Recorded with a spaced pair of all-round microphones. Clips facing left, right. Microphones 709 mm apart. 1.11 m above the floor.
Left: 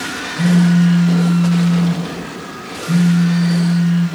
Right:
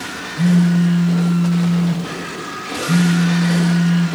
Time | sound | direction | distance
0.3 | a phone buzzing | 45° left (ahead or behind) | 3.5 m